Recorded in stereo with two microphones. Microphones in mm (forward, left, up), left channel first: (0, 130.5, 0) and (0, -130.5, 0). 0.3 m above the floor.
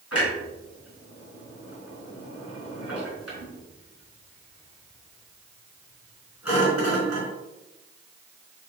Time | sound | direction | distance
0.1 | a clunk | 65° left (ahead or behind) | 4.5 m